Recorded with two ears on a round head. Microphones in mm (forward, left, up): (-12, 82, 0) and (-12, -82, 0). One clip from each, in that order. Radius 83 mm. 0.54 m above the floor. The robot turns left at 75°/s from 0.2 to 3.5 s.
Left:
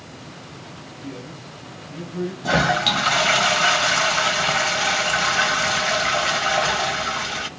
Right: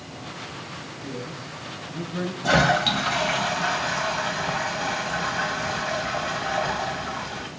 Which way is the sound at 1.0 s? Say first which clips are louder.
Even; 40° left.